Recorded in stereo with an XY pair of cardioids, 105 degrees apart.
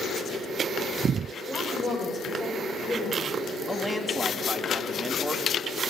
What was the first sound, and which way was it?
A woman speaking, 40° left.